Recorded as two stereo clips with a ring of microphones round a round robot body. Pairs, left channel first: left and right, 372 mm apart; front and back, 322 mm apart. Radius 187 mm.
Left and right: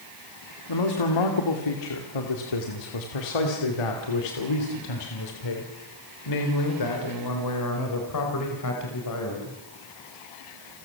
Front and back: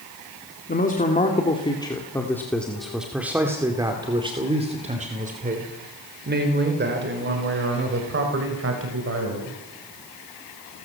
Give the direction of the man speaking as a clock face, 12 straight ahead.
10 o'clock.